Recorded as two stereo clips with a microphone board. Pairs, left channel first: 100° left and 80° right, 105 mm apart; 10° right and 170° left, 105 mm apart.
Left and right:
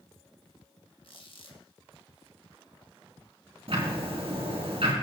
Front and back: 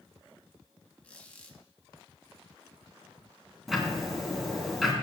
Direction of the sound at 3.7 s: 100° right.